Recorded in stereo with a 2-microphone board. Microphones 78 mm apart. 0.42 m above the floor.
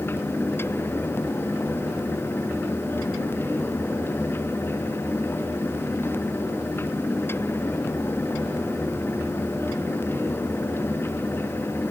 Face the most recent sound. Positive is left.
No sound to turn to.